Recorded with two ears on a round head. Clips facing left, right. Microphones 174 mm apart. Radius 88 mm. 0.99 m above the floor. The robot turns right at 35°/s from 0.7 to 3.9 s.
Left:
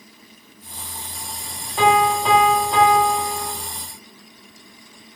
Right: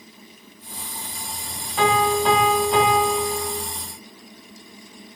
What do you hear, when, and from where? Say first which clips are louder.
1.8 s a piano: left 2 dB; 160° left, 0.9 m; by 3.5 s 135° right, 0.9 m